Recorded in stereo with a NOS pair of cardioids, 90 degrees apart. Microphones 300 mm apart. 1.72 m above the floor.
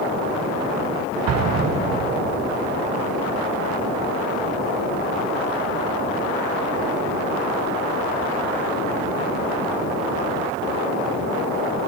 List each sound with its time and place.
1.3 s an explosion: 60° right, 1.4 m